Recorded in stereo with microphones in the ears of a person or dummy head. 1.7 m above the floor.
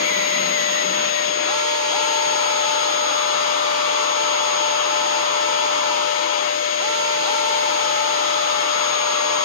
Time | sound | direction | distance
0.0 | a machine running | 50° left (ahead or behind) | 8 m